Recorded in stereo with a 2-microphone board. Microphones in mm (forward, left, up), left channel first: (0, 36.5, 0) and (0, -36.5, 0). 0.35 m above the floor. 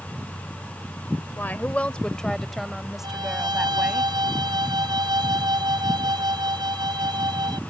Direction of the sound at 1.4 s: 30° left (ahead or behind).